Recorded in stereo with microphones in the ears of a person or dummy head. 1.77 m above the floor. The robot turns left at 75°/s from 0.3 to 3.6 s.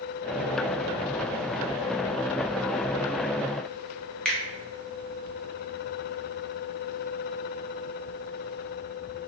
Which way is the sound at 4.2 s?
Centre (ahead or behind).